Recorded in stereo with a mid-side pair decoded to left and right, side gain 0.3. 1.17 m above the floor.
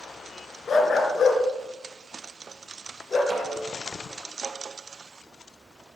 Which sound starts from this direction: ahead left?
A dog barking, at 0.7 s.